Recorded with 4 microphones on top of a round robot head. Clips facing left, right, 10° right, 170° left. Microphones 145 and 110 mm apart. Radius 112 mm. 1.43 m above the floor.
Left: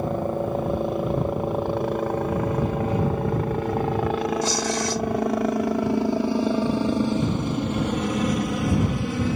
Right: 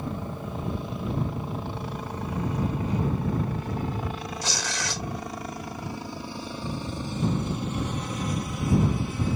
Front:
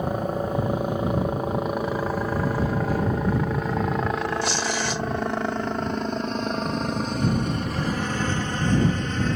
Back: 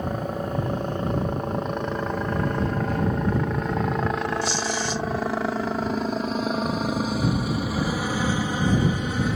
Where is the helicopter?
65° left; by 9.4 s 90° left.